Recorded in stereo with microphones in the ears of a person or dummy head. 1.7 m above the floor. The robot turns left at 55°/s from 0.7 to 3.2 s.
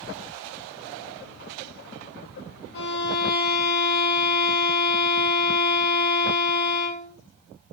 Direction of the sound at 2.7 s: 65° left (ahead or behind).